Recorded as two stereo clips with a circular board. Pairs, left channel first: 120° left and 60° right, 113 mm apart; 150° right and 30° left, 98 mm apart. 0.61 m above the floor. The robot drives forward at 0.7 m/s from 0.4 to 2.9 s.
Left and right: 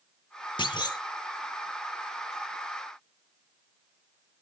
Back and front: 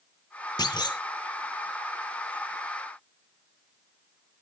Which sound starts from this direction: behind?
A clunk, at 0.6 s.